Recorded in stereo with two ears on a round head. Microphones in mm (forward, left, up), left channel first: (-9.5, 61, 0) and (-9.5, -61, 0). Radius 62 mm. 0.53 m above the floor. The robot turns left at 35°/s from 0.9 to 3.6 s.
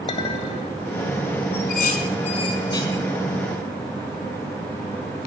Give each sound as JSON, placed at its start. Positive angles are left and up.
{"t": 0.1, "sound": "a clink", "side_deg": 40, "distance_m": 2.5}
{"t": 1.5, "sound": "dishes clattering", "side_deg": 70, "distance_m": 3.5}